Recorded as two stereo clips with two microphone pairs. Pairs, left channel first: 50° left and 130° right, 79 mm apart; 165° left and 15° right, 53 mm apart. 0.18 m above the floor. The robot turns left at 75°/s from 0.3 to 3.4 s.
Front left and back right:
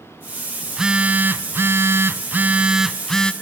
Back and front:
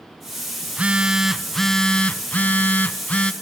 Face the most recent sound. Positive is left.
turn(degrees=110)